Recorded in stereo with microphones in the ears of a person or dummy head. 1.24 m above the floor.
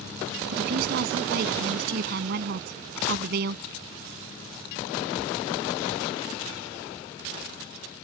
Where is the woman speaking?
55° right (ahead or behind).